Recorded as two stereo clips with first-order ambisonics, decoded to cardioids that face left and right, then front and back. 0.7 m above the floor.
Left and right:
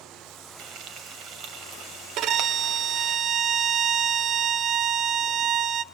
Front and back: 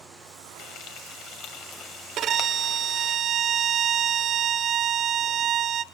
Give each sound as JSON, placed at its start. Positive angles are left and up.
{"t": 0.6, "sound": "frying", "azimuth_deg": -45, "distance_m": 2.5}
{"t": 2.2, "sound": "a violin", "azimuth_deg": -130, "distance_m": 0.8}